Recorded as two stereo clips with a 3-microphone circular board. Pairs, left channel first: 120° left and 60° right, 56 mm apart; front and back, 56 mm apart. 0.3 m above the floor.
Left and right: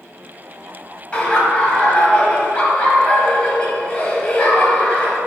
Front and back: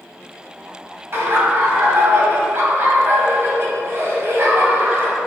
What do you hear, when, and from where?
1.1 s laughter: straight behind, 1.9 m